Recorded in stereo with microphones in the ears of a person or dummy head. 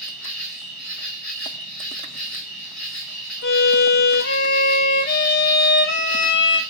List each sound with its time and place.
0.0 s an insect: centre (ahead or behind), 0.8 m
3.4 s a violin: 55° left (ahead or behind), 0.6 m